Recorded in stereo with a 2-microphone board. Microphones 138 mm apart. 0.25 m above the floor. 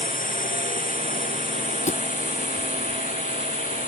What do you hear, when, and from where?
0.0 s a drone: 85° left; by 3.9 s 75° left (ahead or behind)
1.9 s a thud: 60° left (ahead or behind)